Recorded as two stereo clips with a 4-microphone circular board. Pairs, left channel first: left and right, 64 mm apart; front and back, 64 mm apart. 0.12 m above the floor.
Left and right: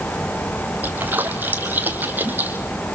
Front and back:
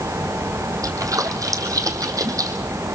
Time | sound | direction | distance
0.8 | a splash | 150° right | 2.5 m